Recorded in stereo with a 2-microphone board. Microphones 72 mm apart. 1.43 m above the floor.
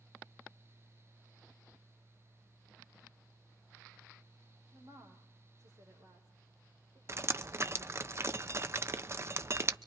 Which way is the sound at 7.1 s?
35° right (ahead or behind).